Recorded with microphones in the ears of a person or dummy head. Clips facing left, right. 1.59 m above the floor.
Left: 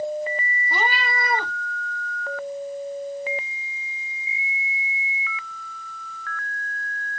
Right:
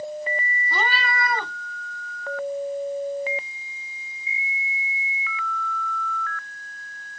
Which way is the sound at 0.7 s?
15° left (ahead or behind).